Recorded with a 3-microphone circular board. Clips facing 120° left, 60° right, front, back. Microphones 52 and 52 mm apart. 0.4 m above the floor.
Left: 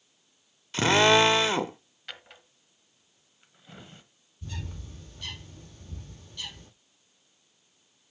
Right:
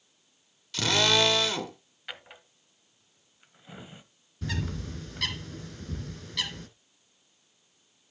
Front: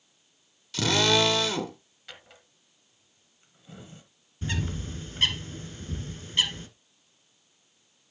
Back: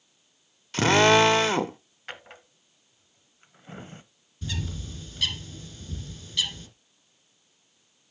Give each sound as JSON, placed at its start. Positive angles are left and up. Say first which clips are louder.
{"t": 0.7, "sound": "a drill", "louder": "left 5 dB, back 6 dB", "azimuth_deg": 165, "distance_m": 0.8}
{"t": 2.1, "sound": "a drawer", "louder": "right 2 dB, back 7 dB", "azimuth_deg": -140, "distance_m": 1.0}
{"t": 4.4, "sound": "a bird", "louder": "right 8 dB, front 3 dB", "azimuth_deg": -55, "distance_m": 1.6}